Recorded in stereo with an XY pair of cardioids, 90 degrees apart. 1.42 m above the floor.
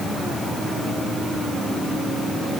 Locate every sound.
Only background noise.